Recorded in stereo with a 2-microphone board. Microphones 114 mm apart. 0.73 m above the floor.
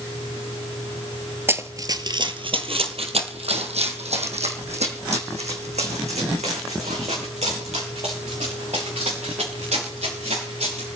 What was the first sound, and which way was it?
Running footsteps, 20° right (ahead or behind).